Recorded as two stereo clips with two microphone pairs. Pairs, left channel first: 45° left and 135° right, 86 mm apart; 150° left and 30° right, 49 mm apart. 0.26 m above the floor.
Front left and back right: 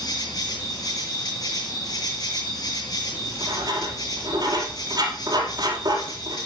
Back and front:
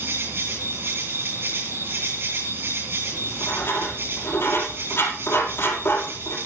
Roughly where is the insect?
Ahead.